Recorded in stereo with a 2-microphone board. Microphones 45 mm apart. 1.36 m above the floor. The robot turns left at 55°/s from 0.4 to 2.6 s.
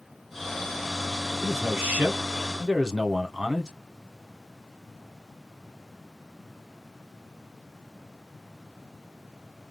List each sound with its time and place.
1.4 s a man speaking: 100° right, 1.2 m; by 3.7 s 165° right, 1.2 m